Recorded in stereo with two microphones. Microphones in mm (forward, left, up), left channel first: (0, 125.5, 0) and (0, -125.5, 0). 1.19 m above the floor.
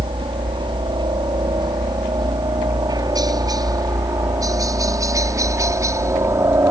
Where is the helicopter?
20° right (ahead or behind); by 6.7 s 10° right (ahead or behind).